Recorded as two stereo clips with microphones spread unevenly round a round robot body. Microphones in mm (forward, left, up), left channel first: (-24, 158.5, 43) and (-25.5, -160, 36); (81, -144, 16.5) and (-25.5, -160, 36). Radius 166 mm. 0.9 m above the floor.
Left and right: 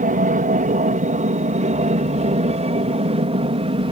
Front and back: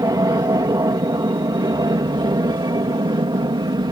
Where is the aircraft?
140° right; by 3.9 s 155° right.